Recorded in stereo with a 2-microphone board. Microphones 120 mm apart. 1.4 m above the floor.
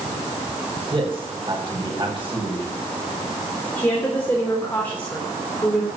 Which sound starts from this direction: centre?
A woman speaking, at 3.8 s.